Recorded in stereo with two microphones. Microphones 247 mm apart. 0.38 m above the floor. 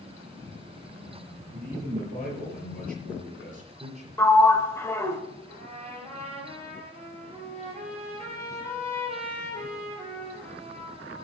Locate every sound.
1.5 s a man speaking: 45° right (ahead or behind), 6 m; by 4.1 s 25° right (ahead or behind), 6 m
4.2 s a sliding door: 10° left (ahead or behind), 1.1 m
5.5 s a trumpet: 25° right (ahead or behind), 5 m